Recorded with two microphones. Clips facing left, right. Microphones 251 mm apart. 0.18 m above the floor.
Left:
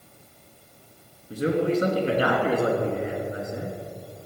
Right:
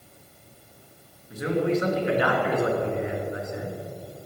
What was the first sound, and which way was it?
A man speaking, 35° left (ahead or behind).